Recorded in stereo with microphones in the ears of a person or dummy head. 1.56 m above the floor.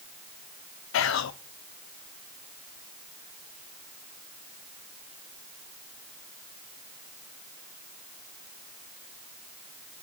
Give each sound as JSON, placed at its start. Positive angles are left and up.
{"t": 0.9, "sound": "whispering", "side_deg": 65, "distance_m": 0.7}